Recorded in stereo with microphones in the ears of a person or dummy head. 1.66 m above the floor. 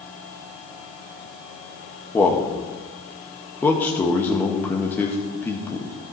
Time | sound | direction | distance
2.1 | a man speaking | 10° left (ahead or behind) | 1.7 m